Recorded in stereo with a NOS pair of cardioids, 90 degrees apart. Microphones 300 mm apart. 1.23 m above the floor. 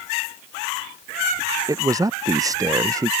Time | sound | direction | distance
1.7 | a man speaking | 10° right | ?